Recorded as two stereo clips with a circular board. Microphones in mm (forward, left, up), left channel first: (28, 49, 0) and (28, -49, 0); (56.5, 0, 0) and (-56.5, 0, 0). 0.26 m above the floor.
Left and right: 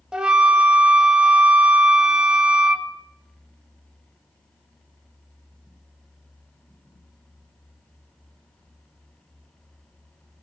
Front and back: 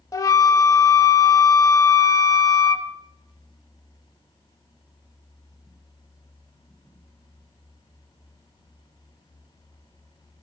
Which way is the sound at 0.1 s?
15° right.